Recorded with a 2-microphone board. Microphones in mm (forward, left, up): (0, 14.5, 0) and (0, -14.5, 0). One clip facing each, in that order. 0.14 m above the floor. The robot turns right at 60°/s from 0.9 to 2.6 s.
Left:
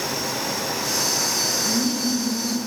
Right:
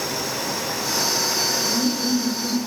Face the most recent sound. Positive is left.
turn(degrees=-50)